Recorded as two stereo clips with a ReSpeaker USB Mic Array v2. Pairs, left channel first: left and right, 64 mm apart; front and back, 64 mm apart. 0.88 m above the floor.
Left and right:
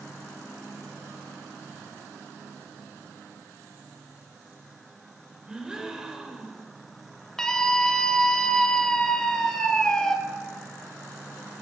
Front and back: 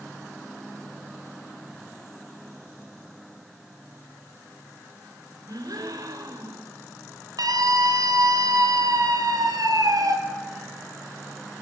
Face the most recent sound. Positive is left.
turn(degrees=170)